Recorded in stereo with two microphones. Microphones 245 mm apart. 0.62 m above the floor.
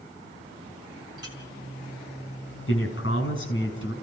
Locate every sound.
1.2 s a clink: 55° left (ahead or behind), 5 m
2.7 s a man speaking: 50° left (ahead or behind), 6.5 m